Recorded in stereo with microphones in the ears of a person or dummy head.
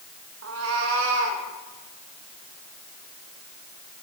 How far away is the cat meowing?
About 1.4 m.